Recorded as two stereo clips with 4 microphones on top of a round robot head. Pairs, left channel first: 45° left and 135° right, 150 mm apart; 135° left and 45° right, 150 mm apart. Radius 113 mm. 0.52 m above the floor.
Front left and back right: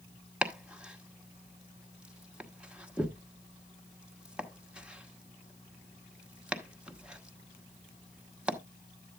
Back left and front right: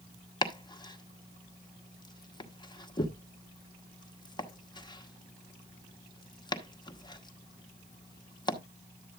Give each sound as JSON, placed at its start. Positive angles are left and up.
{"t": 0.4, "sound": "chopping", "azimuth_deg": 145, "distance_m": 1.2}